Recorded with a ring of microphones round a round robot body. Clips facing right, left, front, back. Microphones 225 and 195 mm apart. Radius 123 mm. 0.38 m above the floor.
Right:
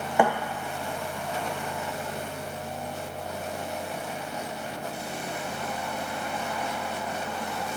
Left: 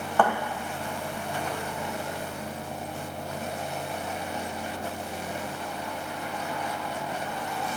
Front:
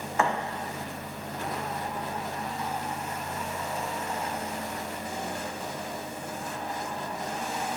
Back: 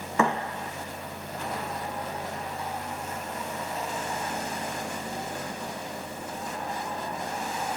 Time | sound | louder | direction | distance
0.2 | a thud | right 2 dB, back 2 dB | 170° right | 1.0 m